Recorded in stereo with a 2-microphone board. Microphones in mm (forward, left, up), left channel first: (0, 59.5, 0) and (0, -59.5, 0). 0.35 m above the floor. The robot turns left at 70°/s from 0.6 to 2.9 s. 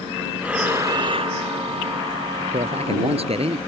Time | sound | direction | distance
0.4 | breathing | 10° right | ?
2.5 | a man speaking | 80° right | ?